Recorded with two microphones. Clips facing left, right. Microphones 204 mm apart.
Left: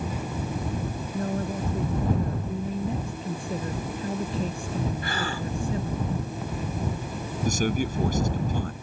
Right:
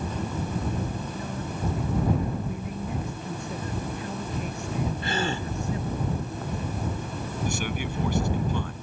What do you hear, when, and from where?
1.1 s a woman speaking: 50° left (ahead or behind)
2.5 s a man speaking: 30° left (ahead or behind)
5.0 s a gasp: 25° right (ahead or behind)
7.5 s a man speaking: 40° left (ahead or behind)